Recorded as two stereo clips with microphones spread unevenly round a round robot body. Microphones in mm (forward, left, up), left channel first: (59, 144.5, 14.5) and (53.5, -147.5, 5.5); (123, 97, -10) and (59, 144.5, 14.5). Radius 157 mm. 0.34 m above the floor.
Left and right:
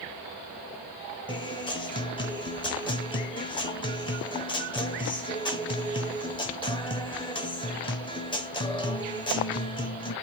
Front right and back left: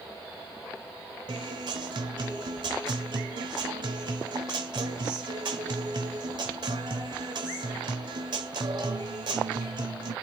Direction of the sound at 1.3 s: 160° left.